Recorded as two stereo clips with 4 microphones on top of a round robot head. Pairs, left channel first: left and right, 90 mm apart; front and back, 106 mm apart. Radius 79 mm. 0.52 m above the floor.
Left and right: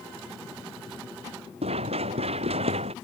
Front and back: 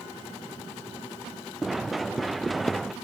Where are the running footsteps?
90° right.